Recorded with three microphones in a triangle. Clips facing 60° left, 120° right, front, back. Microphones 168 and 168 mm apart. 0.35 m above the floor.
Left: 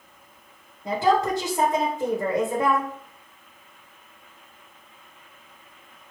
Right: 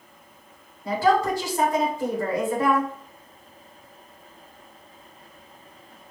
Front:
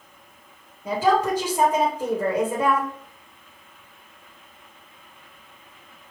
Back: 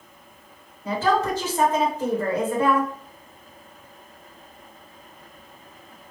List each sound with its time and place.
0.8 s a woman speaking: 55° left, 1.3 m